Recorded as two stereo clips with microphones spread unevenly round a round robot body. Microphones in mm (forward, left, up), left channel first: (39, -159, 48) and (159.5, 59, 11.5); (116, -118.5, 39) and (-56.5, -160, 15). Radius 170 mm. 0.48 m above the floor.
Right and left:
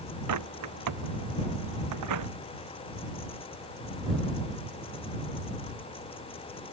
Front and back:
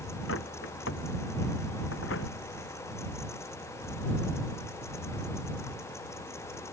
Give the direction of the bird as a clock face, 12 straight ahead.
10 o'clock.